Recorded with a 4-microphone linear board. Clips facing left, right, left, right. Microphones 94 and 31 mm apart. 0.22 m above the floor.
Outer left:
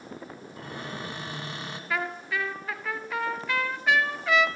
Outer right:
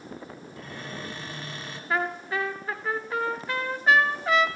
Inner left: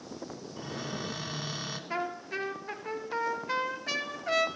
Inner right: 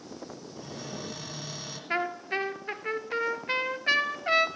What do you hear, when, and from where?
0.6 s a cupboard door: 20° left (ahead or behind), 1.2 m
1.9 s a trumpet: 40° right (ahead or behind), 0.5 m